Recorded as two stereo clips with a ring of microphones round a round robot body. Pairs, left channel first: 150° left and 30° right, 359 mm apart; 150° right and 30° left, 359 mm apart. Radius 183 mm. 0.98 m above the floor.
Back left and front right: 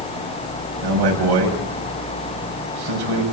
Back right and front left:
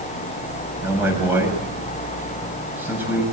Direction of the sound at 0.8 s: 55° right.